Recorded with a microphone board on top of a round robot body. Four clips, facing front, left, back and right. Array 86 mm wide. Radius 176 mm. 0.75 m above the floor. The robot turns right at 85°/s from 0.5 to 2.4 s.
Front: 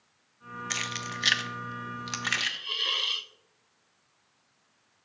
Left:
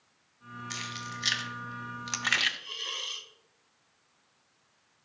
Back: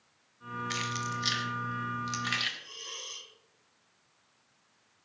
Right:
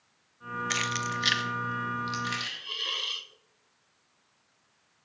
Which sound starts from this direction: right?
Keys jangling, at 0.7 s.